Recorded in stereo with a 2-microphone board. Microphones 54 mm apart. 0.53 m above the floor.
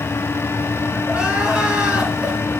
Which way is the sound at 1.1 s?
20° right (ahead or behind).